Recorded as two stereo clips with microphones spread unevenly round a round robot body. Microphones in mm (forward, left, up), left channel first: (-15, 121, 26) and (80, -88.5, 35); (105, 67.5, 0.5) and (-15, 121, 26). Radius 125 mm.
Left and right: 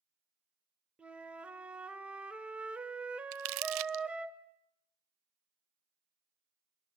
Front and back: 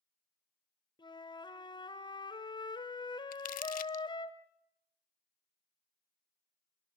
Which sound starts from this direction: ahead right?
Crumpling, at 3.3 s.